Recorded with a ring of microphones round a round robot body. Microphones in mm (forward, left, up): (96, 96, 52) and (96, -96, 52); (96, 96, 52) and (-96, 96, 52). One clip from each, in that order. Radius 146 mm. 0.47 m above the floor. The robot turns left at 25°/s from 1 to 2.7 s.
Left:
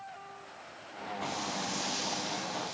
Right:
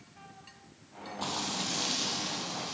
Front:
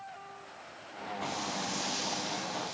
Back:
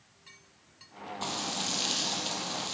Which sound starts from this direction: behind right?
Frying, at 1.2 s.